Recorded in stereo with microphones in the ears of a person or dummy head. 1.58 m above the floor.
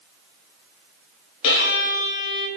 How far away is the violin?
About 2 m.